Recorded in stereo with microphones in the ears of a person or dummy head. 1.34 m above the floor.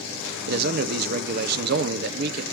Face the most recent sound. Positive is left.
turn(degrees=-45)  # may be behind; listen again after turning